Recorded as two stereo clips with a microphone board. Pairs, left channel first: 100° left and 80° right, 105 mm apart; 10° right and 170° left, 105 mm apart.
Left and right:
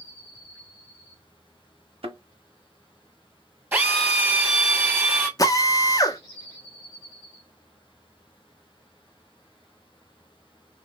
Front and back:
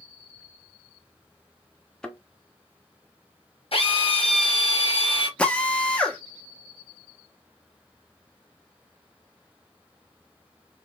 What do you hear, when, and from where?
2.0 s a thud: 95° right, 0.9 m
3.7 s a drill: 10° right, 2 m
5.4 s a drill: 65° left, 0.8 m